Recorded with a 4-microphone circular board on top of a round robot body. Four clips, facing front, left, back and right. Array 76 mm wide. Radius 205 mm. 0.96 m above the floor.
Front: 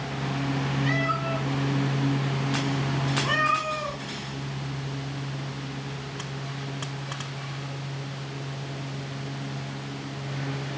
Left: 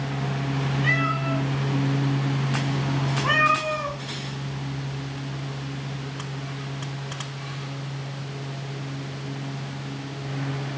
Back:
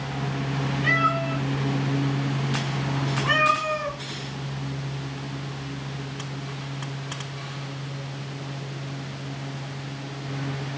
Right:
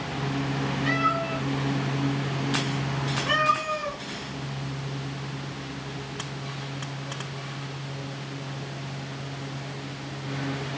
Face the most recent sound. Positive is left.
turn(degrees=90)